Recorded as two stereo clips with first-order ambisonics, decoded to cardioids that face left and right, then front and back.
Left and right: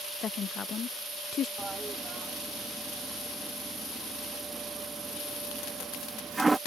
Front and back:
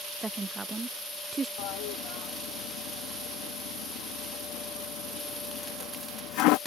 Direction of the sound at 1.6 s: 10° right.